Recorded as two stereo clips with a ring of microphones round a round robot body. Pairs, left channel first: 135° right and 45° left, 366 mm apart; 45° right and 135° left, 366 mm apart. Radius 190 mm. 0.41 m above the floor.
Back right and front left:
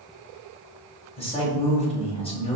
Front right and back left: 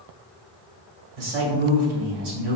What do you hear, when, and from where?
1.2 s a man speaking: 150° left, 1.8 m